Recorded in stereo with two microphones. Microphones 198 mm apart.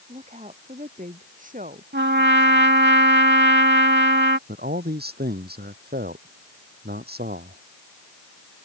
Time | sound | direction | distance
0.1 | a woman speaking | 35° right (ahead or behind) | ?
1.9 | a trumpet | 60° right (ahead or behind) | ?
4.5 | a man speaking | 50° right (ahead or behind) | ?